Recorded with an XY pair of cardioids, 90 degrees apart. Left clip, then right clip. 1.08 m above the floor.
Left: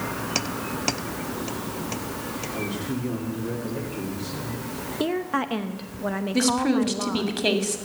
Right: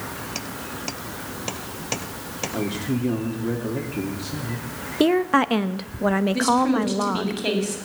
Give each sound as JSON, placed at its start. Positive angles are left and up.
{"t": 2.5, "sound": "a man speaking", "azimuth_deg": -50, "distance_m": 2.5}
{"t": 5.0, "sound": "a woman speaking", "azimuth_deg": -50, "distance_m": 0.9}
{"t": 6.3, "sound": "a woman speaking", "azimuth_deg": 35, "distance_m": 2.5}